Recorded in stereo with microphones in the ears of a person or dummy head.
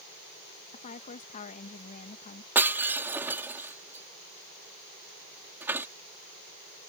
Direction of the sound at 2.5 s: 10° right (ahead or behind).